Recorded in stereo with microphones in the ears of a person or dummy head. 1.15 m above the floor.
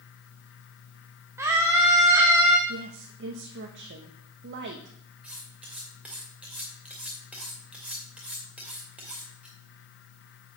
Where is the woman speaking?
55° right (ahead or behind), 0.9 m.